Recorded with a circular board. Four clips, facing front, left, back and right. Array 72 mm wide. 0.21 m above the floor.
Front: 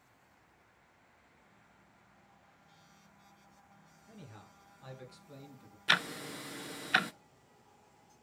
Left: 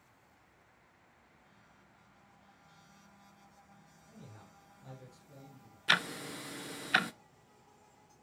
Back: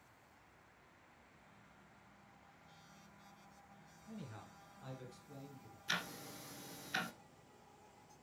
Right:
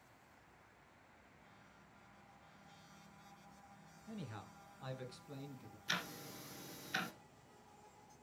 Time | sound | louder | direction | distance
4.1 | a man speaking | right 6 dB, back 2 dB | 95° right | 3 m
5.9 | ticking | left 12 dB, front 11 dB | 40° left | 0.6 m